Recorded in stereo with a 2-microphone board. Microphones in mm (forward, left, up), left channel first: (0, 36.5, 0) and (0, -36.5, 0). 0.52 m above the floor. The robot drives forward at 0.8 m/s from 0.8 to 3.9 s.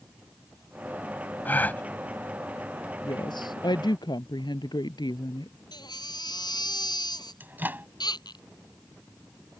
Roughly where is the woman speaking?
Left.